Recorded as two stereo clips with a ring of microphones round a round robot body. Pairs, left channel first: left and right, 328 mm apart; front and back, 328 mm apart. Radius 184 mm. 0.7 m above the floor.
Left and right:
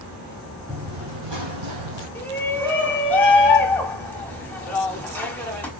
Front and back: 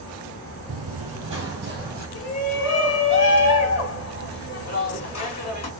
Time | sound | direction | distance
0.7 | running footsteps | 160° right | 0.9 m
2.1 | a shout | 5° left | 1.5 m